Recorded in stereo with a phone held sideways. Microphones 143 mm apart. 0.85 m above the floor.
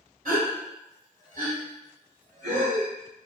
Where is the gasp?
70° right (ahead or behind), 1.9 m.